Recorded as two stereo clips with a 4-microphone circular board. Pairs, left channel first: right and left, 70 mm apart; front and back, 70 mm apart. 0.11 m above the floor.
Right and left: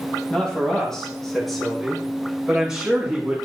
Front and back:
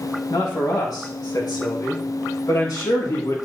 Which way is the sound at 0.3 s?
15° right.